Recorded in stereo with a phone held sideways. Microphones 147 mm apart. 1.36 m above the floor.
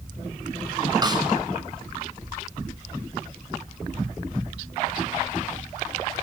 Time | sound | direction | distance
1.0 | a snare drum | 25° right (ahead or behind) | 6.5 m